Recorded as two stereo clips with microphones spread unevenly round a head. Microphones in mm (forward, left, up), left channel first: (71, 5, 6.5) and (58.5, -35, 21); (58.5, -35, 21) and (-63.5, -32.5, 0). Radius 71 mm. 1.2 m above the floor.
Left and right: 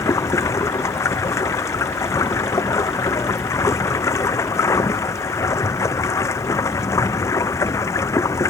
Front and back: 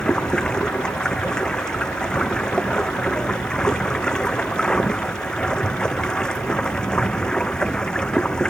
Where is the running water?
85° left.